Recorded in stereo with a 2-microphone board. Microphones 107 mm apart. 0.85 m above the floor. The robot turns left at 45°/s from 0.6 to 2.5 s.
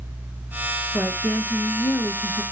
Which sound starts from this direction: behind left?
A woman speaking, at 0.9 s.